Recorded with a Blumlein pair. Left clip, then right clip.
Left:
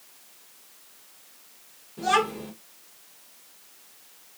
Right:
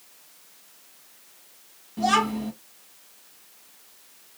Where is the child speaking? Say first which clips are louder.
Right 1 dB; 30° right, 2.5 m.